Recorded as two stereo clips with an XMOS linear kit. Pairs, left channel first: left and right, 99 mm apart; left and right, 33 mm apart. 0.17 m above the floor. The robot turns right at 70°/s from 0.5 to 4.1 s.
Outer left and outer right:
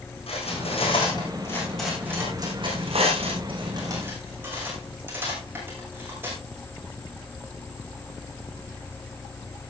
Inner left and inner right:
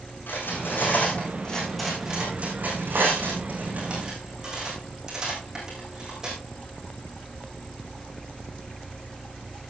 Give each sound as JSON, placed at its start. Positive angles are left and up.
{"t": 0.3, "sound": "cutlery clinking", "side_deg": 85, "distance_m": 7.0}